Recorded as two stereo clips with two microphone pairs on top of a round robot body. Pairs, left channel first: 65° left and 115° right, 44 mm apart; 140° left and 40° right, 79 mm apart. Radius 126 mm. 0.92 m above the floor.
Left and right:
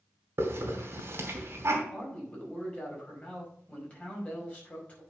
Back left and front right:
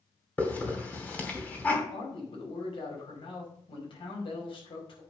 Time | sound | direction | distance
0.4 | a hiss | 145° right | 2.5 m
1.9 | a man speaking | 130° left | 5 m